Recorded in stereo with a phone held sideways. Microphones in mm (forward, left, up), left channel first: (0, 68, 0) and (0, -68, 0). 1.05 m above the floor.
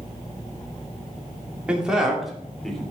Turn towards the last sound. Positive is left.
turn(degrees=5)  # may be behind; listen again after turning